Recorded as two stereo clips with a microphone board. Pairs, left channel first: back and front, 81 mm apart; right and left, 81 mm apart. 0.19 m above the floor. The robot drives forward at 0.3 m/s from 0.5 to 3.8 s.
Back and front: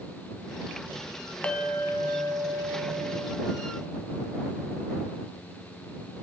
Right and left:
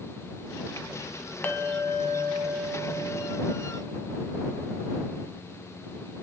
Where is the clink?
120° right, 0.7 m; by 4.7 s 160° right, 1.1 m.